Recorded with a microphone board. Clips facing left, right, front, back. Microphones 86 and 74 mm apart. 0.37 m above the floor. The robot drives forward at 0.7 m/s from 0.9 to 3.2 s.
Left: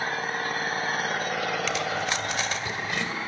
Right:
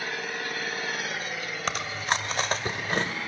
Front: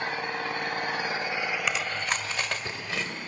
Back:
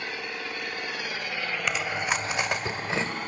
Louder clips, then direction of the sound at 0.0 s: Left 4 dB, front 4 dB; 45° left.